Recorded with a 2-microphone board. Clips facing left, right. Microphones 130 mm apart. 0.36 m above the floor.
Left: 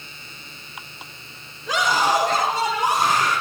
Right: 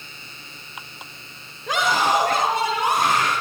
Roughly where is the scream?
Right.